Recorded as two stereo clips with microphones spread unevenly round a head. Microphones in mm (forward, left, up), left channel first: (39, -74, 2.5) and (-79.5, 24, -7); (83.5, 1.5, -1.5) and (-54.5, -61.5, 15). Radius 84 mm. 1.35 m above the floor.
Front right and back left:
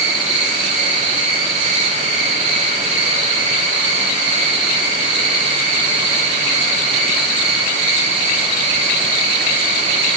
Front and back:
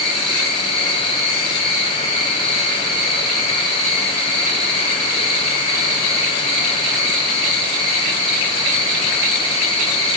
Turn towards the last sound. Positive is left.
turn(degrees=90)